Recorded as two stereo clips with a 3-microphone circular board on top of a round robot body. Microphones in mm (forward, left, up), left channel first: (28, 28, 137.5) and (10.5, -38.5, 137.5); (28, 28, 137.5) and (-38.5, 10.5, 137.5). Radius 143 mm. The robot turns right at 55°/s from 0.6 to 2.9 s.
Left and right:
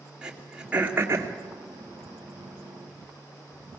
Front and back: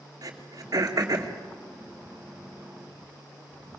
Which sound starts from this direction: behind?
Throat clearing, at 0.2 s.